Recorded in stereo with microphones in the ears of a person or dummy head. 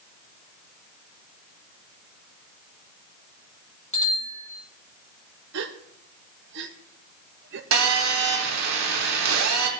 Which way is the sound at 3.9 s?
30° left (ahead or behind).